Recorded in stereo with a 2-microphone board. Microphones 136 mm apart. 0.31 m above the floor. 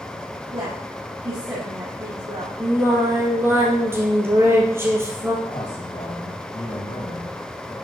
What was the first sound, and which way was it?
A woman speaking, 25° right (ahead or behind).